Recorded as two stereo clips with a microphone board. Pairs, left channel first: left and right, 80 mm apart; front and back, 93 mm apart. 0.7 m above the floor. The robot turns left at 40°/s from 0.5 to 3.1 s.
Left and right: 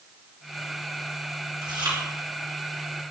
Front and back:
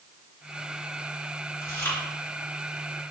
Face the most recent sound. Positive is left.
turn(degrees=-110)